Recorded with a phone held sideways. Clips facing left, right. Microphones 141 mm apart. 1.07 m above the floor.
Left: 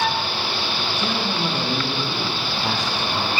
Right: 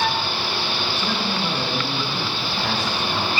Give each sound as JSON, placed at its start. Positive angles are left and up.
{"t": 1.0, "sound": "a man speaking", "side_deg": 15, "distance_m": 9.0}